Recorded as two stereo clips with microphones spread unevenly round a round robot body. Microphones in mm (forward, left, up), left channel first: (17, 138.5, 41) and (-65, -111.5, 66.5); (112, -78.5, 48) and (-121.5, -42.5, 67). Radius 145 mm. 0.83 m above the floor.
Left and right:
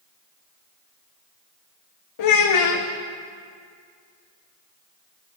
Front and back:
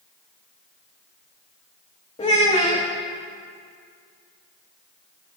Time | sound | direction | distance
2.2 | a child speaking | 60° left | 0.7 m